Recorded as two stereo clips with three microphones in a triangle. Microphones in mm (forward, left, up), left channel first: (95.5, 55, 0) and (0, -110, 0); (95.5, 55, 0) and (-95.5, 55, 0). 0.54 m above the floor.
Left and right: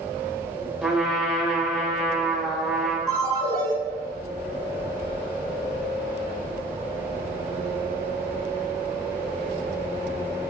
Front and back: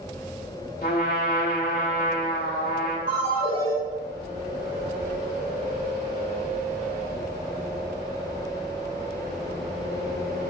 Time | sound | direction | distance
0.8 | a trumpet | 35° right | 0.8 m
3.1 | a ringtone | 170° left | 1.9 m